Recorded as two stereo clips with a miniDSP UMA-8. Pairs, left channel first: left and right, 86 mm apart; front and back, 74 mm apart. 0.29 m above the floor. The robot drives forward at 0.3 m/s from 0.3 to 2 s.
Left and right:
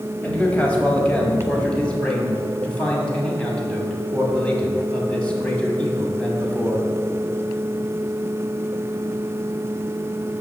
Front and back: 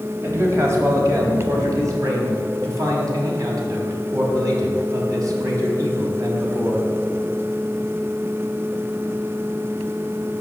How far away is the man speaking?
About 1.5 m.